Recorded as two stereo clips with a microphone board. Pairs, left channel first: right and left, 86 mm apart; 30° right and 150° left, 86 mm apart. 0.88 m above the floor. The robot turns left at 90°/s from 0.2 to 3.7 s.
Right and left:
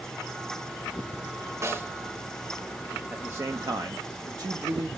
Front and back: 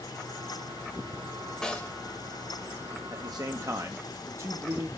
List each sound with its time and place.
1.6 s a snare drum: 55° left, 0.7 m; by 1.9 s 30° left, 0.7 m
3.1 s a man speaking: 160° left, 0.6 m; by 4.9 s 105° left, 0.6 m